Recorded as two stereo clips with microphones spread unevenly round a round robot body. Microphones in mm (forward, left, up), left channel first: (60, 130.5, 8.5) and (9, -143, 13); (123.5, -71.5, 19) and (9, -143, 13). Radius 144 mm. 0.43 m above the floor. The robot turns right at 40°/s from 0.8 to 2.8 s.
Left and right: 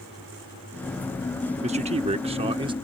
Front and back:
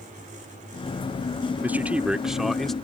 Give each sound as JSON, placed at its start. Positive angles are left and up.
{"t": 1.6, "sound": "a man speaking", "azimuth_deg": -100}